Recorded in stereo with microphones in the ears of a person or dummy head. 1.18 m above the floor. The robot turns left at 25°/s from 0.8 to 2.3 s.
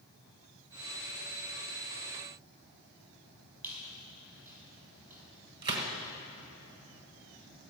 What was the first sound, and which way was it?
A squeak, 10° right (ahead or behind).